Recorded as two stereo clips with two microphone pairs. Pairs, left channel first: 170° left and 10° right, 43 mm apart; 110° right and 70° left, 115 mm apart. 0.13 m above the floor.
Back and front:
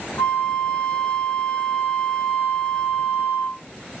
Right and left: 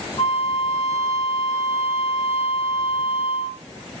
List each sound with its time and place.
0.2 s a flute: 130° right, 0.9 m